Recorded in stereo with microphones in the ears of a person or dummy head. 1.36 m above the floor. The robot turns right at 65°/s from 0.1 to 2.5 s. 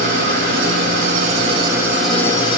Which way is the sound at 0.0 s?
125° right.